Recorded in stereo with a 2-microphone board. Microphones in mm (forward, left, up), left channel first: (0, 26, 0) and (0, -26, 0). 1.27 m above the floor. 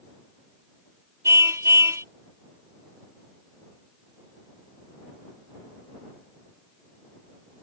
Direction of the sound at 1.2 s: 80° right.